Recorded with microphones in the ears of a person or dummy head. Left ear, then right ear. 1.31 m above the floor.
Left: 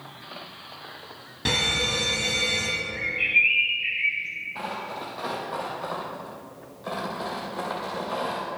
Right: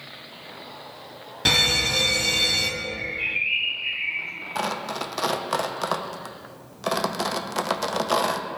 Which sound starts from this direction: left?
A bird, at 2.8 s.